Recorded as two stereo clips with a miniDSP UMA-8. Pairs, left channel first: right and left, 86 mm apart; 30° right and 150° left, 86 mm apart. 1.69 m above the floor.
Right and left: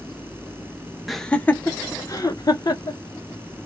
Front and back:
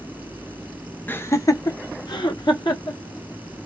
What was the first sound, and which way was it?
Laughter, 5° left.